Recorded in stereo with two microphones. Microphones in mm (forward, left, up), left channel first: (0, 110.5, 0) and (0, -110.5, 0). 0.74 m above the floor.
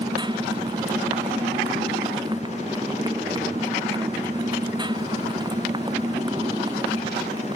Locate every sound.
0.0 s a motorcycle: 20° right (ahead or behind)